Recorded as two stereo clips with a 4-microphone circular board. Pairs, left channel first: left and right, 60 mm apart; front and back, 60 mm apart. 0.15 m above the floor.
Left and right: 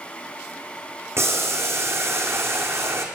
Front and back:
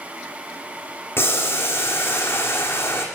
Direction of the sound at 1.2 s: 50° right.